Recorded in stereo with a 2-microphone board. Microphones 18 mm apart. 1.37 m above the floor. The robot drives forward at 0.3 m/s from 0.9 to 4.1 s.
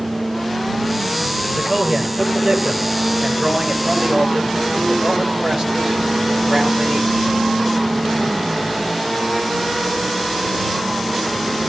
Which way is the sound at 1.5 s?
40° right (ahead or behind).